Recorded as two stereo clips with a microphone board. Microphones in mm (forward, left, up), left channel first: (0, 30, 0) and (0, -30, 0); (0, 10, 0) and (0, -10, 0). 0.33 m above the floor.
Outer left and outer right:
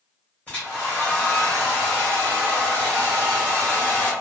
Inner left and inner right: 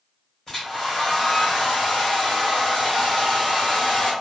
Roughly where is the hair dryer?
Centre.